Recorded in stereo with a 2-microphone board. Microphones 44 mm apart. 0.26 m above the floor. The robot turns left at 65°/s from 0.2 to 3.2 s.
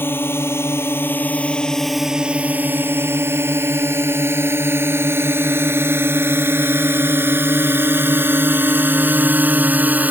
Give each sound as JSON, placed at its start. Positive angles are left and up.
{"t": 0.0, "sound": "a drone", "side_deg": 65}